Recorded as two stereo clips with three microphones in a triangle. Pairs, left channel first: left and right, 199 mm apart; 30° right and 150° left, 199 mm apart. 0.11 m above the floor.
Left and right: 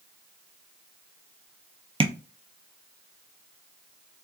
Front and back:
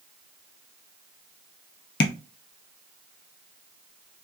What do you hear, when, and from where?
2.0 s tapping: 25° right, 0.5 m